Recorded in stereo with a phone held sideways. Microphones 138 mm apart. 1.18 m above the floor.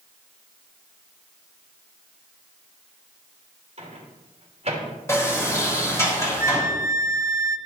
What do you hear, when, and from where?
3.8 s a microwave: 55° right (ahead or behind), 3 m
5.1 s a sliding door: 20° left (ahead or behind), 6 m
6.4 s a flute: 20° right (ahead or behind), 0.7 m